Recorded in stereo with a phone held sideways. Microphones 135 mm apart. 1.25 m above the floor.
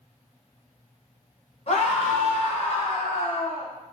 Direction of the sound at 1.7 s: 50° left (ahead or behind).